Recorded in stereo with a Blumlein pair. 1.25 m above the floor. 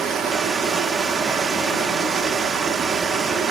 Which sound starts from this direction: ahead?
Running water, at 0.0 s.